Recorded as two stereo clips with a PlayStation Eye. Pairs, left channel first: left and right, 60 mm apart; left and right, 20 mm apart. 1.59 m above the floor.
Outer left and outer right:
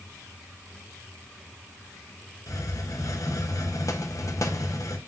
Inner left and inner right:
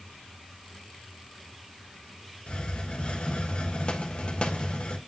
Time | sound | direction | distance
2.5 | a hiss | 65° left (ahead or behind) | 1.0 m